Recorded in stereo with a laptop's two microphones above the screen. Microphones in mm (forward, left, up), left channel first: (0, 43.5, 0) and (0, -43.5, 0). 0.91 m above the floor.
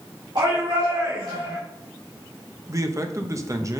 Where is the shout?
60° right (ahead or behind), 2.5 m.